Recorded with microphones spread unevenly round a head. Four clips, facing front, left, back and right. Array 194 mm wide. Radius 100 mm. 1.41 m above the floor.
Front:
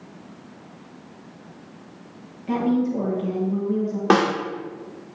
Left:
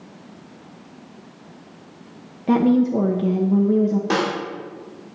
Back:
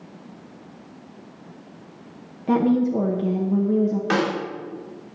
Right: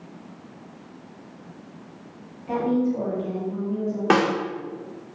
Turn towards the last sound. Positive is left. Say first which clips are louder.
# right 2 dB, front 9 dB
turn(degrees=-25)